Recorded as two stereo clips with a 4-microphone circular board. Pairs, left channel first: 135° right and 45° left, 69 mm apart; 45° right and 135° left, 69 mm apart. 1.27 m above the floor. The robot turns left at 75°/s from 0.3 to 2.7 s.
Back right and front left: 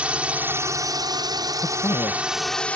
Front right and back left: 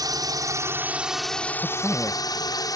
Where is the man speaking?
110° right; by 2.7 s 170° left.